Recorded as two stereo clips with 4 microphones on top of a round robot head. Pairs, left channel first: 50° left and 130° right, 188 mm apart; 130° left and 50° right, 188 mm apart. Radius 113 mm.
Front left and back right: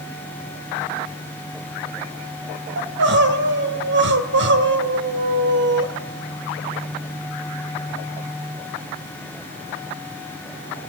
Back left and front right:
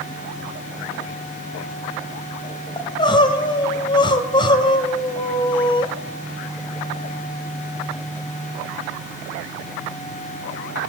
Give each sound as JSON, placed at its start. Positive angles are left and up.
{"t": 2.8, "sound": "crying", "azimuth_deg": -160, "distance_m": 2.5}